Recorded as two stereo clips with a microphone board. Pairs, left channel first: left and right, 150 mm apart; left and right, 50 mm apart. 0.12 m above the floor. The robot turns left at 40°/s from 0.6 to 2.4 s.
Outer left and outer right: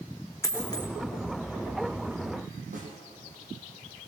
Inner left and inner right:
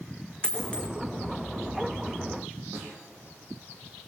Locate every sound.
0.4 s a dropped coin: 20° left (ahead or behind), 1.8 m; by 0.9 s 30° left (ahead or behind), 1.8 m
2.7 s a snare drum: 60° right (ahead or behind), 6 m